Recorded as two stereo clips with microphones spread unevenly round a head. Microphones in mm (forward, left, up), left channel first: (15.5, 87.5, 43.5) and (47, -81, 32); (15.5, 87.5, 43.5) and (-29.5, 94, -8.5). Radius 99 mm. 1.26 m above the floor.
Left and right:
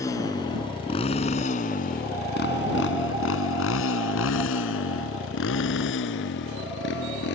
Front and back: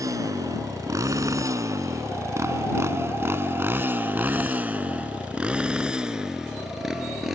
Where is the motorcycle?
175° left; by 7.3 s 80° left.